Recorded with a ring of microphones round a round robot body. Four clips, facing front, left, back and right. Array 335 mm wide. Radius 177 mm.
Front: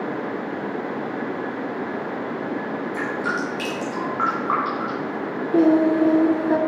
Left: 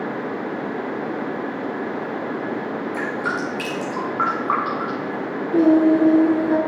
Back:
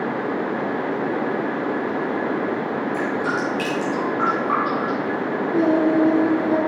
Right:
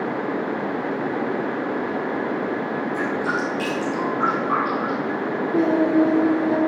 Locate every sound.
2.9 s dripping: 75° left, 3 m
5.5 s singing: 20° left, 1.1 m